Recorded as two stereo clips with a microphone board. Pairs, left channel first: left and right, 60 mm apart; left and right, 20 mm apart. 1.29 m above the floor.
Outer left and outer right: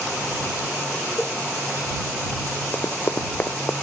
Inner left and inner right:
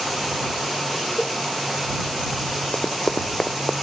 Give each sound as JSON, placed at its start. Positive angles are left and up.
{"t": 1.2, "sound": "a cowbell", "side_deg": -10}
{"t": 2.7, "sound": "running footsteps", "side_deg": 40}